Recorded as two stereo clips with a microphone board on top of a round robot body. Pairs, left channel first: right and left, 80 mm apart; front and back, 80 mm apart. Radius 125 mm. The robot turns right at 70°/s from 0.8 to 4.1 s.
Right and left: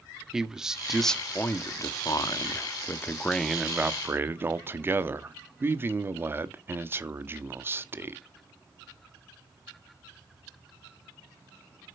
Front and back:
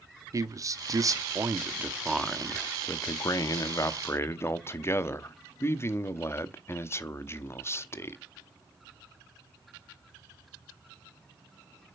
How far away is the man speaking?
About 1.0 m.